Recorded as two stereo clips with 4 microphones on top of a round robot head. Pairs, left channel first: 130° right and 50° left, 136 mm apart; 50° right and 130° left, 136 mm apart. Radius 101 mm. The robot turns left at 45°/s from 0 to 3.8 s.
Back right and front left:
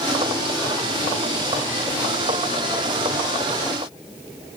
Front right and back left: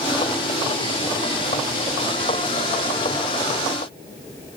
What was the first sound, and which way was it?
Only background noise.